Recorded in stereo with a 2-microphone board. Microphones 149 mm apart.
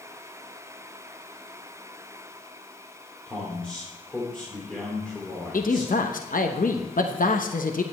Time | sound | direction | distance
3.3 | a man speaking | 5° left (ahead or behind) | 2.5 m
5.5 | a man speaking | 65° left (ahead or behind) | 0.9 m